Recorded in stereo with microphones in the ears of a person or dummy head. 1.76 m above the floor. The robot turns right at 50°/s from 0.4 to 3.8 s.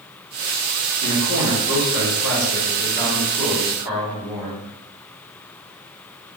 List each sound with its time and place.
1.0 s a man speaking: 55° left, 1.3 m; by 4.6 s 165° right, 1.3 m